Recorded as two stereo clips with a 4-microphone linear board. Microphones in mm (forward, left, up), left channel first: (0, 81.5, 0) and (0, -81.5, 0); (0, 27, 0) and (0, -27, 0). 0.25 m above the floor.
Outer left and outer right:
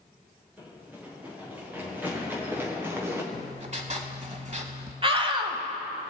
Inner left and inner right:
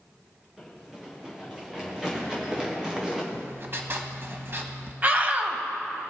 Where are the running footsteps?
10° right (ahead or behind), 5 m; by 3.2 s 15° right (ahead or behind), 2.5 m.